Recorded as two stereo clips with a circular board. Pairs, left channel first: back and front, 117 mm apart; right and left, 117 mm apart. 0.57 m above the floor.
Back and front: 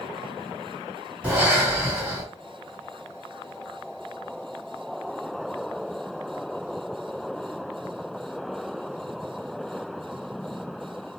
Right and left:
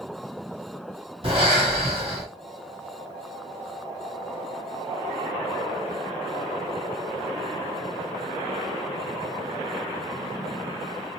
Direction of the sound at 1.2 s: 75° left.